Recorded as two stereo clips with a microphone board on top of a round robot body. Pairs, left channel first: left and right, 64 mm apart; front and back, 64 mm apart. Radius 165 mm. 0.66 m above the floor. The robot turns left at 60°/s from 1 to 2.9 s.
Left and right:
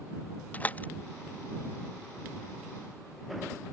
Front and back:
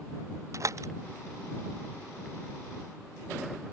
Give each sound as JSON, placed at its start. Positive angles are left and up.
{"t": 0.5, "sound": "a door slam", "azimuth_deg": 150}